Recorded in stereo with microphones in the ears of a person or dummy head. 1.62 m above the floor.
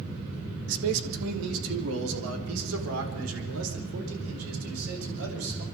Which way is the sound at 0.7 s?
75° right (ahead or behind).